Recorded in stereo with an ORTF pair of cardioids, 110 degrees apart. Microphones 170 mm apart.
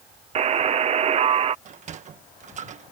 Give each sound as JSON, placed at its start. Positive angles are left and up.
{"t": 0.3, "sound": "a buzzer", "azimuth_deg": -40}
{"t": 1.6, "sound": "a sliding door", "azimuth_deg": -50}